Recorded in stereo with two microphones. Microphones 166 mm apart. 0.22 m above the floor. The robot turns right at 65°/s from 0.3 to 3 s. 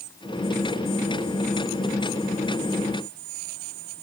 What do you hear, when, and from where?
Only background noise.